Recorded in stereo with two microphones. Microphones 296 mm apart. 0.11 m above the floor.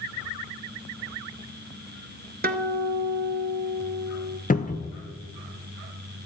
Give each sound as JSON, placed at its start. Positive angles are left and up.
{"t": 2.4, "sound": "a guitar", "side_deg": -30, "distance_m": 0.7}
{"t": 4.5, "sound": "a cupboard door", "side_deg": 30, "distance_m": 0.7}